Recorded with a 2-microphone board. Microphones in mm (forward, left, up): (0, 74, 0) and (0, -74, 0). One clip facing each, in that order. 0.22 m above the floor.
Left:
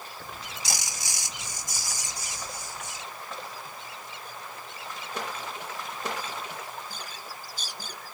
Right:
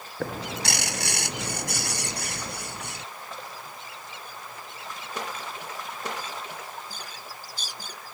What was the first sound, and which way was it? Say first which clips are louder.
A bird: right 14 dB; 65° right (ahead or behind).